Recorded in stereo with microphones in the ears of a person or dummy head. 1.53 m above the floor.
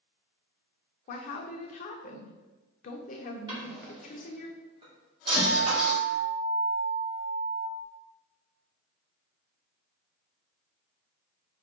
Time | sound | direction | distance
1.1 | a woman speaking | 50° left (ahead or behind) | 0.6 m
3.5 | a drawer | 30° right (ahead or behind) | 1.8 m
5.4 | a guitar | 70° left (ahead or behind) | 0.9 m